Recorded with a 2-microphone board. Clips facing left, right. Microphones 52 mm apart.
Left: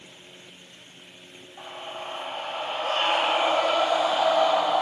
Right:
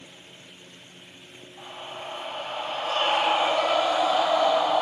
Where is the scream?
40° left (ahead or behind), 1.7 m; by 4.8 s 35° left (ahead or behind), 3.5 m.